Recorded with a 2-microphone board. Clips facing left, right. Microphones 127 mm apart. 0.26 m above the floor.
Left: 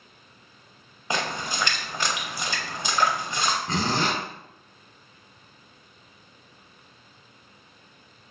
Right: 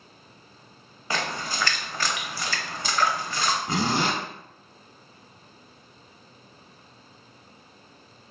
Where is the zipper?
10° right (ahead or behind), 0.7 m.